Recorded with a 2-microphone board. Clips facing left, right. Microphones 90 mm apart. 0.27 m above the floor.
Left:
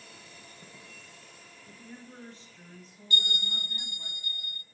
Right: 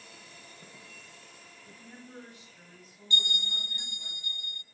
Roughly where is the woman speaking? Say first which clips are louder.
Left 2 dB; right.